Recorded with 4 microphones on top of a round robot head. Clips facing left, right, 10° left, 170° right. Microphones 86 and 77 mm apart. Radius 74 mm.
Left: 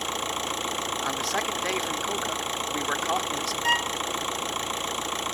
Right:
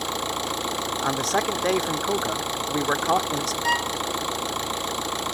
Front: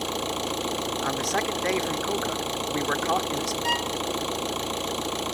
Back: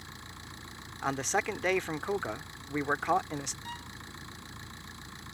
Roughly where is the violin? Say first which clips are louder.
Right 1 dB, front 17 dB; ahead.